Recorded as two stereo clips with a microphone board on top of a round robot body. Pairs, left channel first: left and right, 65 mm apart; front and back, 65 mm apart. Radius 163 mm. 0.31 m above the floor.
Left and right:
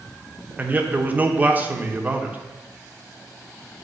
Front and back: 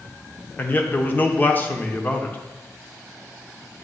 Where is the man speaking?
45° right, 1.1 m.